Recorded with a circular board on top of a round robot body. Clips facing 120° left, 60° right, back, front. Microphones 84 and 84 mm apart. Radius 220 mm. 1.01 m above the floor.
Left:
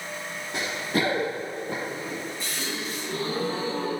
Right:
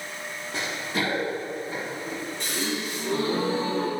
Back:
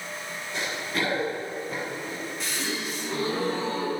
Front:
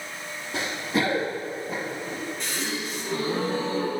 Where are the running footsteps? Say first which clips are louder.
Left 2 dB, front 4 dB; 45° left, 1.3 m; by 2.2 s 95° left, 2.5 m.